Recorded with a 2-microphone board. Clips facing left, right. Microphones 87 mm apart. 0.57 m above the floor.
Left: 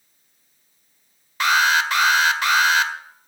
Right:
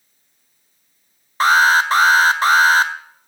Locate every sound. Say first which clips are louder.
1.4 s an alarm: right 5 dB; 35° right (ahead or behind), 1.4 m